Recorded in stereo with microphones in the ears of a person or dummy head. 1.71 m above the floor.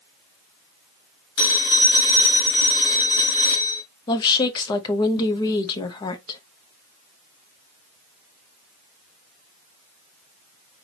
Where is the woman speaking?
25° left (ahead or behind), 0.8 m.